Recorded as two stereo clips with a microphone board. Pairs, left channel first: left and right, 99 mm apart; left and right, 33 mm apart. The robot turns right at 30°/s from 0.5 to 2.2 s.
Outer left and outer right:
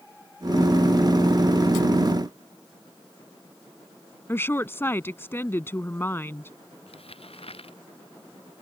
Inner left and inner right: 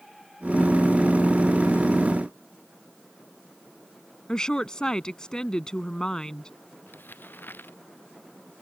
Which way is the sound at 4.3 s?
25° left (ahead or behind).